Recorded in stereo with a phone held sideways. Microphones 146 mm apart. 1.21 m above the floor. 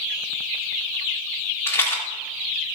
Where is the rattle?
20° left (ahead or behind), 2 m.